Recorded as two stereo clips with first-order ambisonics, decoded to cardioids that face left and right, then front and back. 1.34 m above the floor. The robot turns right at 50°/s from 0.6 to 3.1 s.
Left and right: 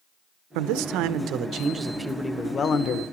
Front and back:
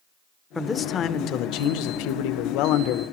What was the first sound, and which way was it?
A man speaking, 75° right.